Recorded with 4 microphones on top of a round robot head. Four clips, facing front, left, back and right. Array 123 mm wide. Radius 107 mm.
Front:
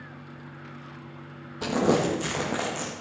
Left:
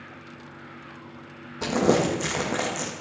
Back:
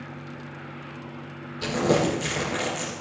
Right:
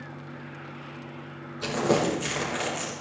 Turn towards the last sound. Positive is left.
turn(degrees=55)